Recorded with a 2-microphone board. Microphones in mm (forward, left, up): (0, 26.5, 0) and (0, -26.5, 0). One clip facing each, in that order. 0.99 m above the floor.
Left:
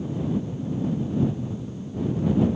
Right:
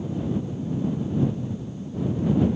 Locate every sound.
Only background noise.